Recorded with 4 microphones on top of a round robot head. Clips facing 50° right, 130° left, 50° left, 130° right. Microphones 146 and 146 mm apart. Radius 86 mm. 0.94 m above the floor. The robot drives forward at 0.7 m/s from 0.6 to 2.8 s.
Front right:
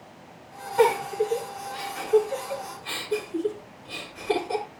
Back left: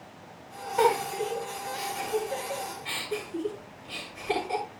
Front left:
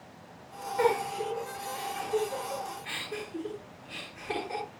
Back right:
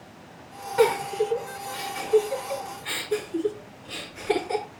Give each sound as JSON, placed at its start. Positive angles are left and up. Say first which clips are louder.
{"t": 0.8, "sound": "a giggle", "louder": "front right 3 dB, back right 6 dB", "azimuth_deg": -145, "distance_m": 8.5}